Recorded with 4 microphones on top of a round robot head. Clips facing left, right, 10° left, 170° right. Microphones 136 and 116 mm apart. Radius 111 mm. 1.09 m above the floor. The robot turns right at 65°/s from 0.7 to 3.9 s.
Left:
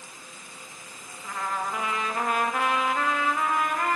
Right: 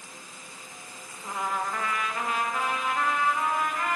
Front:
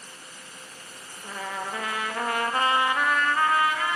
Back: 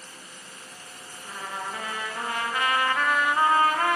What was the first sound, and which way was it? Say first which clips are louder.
A trumpet: even, front 2 dB; 25° right.